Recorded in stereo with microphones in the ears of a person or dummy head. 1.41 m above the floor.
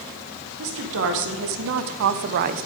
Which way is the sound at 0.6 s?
65° right (ahead or behind).